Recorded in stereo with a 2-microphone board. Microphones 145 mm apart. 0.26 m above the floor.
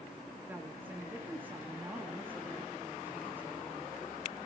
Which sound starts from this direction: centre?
A woman speaking, at 0.5 s.